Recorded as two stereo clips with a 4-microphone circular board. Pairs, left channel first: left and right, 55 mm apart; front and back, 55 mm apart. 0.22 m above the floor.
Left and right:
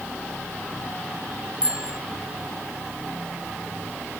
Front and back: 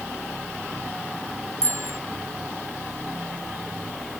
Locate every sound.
1.6 s a bicycle bell: 160° right